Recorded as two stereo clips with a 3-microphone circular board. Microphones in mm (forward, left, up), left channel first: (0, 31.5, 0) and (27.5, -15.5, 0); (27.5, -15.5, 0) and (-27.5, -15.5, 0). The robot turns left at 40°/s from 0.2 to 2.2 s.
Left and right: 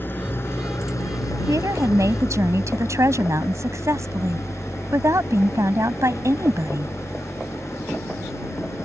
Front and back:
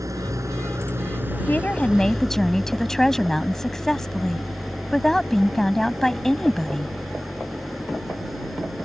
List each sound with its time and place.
0.0 s an engine running: 170° left; by 8.8 s 90° left
1.5 s a woman speaking: 55° right; by 6.9 s 85° right